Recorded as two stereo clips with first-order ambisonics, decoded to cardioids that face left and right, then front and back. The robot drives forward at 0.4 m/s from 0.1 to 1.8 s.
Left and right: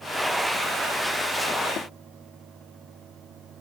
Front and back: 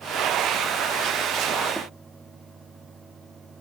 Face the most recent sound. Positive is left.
turn(degrees=95)